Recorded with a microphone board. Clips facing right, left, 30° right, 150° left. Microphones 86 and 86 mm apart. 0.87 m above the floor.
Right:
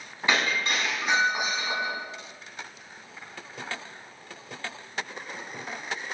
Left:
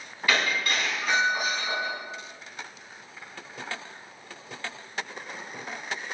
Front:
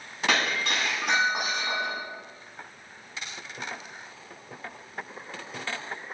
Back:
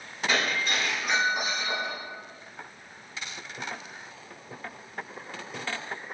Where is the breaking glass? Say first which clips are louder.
Even, front 1 dB; 25° right, 4.5 m.